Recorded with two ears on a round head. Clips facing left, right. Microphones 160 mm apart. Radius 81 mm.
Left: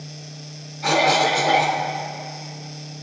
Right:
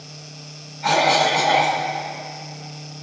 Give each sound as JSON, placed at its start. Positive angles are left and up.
{"t": 0.8, "sound": "a cough", "side_deg": 50, "distance_m": 1.9}